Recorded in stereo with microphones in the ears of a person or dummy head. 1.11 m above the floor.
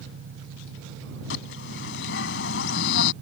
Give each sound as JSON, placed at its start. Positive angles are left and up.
{"t": 0.0, "sound": "an engine running", "side_deg": -85}
{"t": 1.3, "sound": "a bird", "side_deg": 75}